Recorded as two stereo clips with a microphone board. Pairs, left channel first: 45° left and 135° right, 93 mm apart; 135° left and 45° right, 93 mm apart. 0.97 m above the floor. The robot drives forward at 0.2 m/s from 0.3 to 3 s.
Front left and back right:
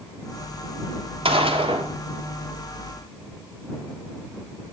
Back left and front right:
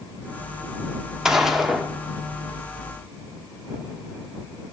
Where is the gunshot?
130° right, 1.2 m; by 1.9 s 135° right, 1.2 m.